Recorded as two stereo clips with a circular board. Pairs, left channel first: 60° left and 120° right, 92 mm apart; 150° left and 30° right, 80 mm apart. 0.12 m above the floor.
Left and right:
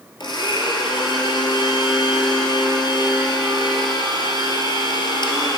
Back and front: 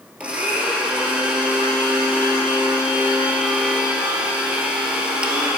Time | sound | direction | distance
0.2 | a blender | 45° left | 1.4 m